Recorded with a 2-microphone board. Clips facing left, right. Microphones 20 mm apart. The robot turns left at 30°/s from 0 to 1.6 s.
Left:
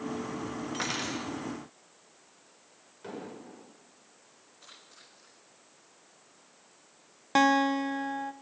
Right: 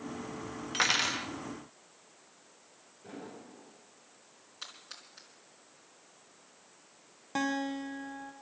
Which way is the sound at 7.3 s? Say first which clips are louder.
Left 9 dB; 45° left (ahead or behind).